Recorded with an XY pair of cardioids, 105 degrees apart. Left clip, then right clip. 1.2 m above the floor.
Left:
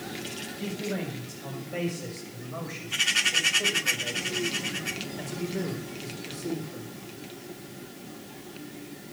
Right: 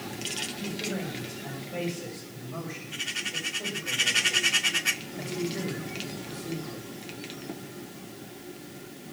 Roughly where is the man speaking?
Ahead.